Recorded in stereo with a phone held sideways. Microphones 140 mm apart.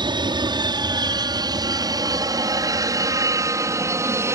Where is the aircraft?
30° right (ahead or behind); by 4.4 s 20° right (ahead or behind).